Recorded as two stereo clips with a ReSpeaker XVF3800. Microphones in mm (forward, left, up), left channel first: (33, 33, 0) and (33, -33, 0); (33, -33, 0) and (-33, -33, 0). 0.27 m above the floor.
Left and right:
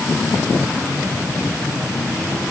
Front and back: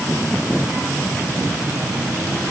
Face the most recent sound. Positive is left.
No sound to turn to.